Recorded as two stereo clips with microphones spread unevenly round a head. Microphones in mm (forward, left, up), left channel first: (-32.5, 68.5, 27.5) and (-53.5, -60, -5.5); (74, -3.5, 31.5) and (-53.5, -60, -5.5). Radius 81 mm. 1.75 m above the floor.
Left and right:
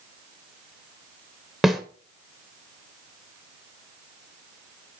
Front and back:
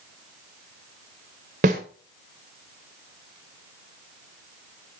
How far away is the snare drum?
About 1.3 m.